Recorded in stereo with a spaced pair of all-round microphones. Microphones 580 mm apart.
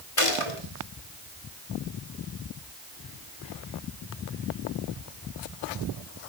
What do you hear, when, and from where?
0.2 s a gunshot: 60° left (ahead or behind), 3 m